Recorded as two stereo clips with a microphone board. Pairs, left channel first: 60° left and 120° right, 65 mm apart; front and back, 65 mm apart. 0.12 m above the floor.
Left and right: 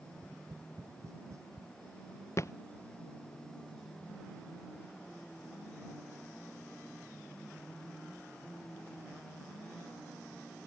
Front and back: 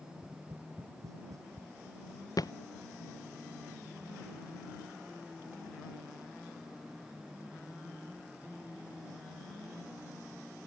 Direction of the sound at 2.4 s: 20° left.